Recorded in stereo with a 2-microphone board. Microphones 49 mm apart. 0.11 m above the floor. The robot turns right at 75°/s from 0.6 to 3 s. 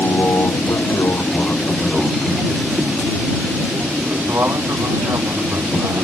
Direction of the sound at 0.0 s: 60° left (ahead or behind).